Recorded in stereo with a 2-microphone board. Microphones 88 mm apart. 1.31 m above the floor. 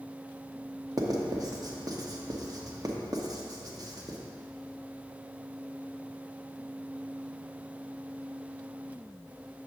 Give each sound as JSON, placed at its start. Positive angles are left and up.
{"t": 1.0, "sound": "writing", "side_deg": -45, "distance_m": 0.8}